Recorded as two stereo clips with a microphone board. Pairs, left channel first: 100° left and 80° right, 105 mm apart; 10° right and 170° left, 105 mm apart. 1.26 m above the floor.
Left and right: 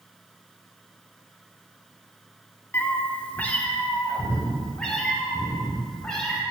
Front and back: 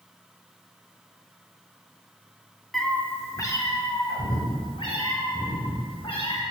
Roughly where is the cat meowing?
Left.